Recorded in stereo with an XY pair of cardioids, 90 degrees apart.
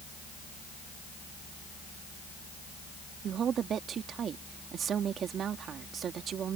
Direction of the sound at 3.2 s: 65° right.